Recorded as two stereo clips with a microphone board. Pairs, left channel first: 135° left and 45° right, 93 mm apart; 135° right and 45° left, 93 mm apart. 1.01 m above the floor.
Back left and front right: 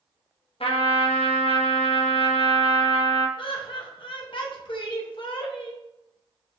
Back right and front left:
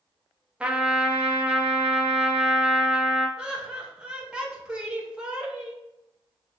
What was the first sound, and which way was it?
A trumpet, 120° left.